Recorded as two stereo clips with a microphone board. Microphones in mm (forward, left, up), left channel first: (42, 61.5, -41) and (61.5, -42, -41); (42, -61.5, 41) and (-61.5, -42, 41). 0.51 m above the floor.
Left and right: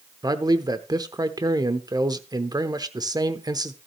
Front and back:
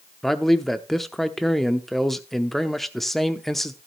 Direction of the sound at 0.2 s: 100° right.